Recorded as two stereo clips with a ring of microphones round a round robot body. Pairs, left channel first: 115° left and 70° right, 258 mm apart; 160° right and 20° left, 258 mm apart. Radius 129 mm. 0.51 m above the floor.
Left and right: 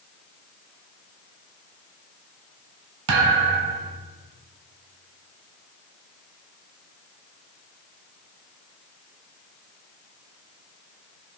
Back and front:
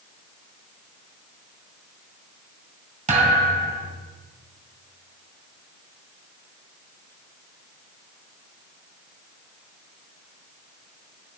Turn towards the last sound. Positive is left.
turn(degrees=-40)